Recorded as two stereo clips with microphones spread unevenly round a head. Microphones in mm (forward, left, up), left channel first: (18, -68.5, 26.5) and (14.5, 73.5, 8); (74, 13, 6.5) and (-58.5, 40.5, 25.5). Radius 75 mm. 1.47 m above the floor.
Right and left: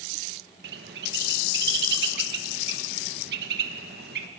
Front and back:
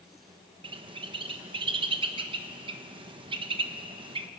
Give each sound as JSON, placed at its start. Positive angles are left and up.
{"t": 0.6, "sound": "a bird", "azimuth_deg": 120, "distance_m": 1.2}